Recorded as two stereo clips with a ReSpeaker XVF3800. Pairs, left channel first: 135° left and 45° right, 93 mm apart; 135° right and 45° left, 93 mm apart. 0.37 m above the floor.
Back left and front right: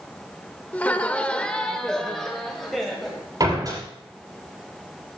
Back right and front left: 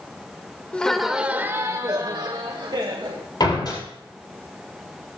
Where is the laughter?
175° left, 0.8 m; by 3.2 s 45° left, 1.6 m.